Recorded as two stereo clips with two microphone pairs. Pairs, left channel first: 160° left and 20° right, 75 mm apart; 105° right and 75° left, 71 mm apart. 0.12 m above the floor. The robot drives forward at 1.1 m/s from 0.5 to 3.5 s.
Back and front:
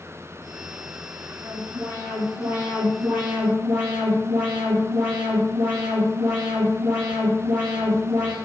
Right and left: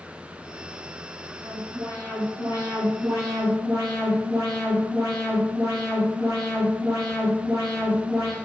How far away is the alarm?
About 6 m.